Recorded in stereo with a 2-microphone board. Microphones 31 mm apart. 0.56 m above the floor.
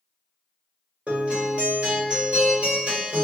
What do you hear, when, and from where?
1.1 s a guitar: 45° right (ahead or behind), 2.0 m